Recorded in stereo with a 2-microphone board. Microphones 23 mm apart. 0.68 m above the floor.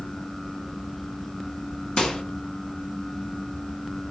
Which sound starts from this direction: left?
A microwave, at 2.0 s.